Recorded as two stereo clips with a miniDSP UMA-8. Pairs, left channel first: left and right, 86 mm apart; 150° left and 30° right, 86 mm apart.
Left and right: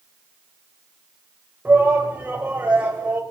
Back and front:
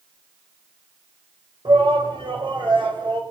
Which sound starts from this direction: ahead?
A shout, at 1.6 s.